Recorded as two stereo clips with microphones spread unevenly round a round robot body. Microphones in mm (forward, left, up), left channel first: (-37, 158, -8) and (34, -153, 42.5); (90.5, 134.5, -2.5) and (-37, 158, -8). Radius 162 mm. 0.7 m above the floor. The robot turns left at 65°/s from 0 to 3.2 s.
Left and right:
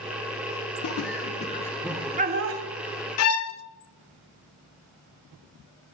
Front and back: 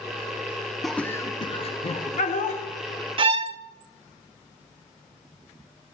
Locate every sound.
0.8 s laughter: 80° left, 0.7 m; by 2.6 s 35° right, 0.7 m
3.2 s a violin: 140° left, 0.6 m